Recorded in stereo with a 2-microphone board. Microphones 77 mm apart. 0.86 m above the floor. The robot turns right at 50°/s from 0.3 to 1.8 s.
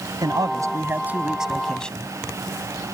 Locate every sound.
0.2 s a man speaking: 65° right; by 2.1 s 10° left